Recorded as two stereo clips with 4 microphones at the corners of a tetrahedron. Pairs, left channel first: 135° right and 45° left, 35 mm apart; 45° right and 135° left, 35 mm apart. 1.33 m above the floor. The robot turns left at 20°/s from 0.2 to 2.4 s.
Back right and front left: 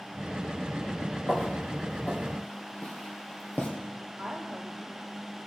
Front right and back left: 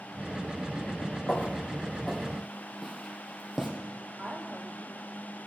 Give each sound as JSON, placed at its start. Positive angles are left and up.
{"t": 1.3, "sound": "footsteps", "azimuth_deg": -90, "distance_m": 2.5}
{"t": 4.2, "sound": "a woman speaking", "azimuth_deg": 110, "distance_m": 3.5}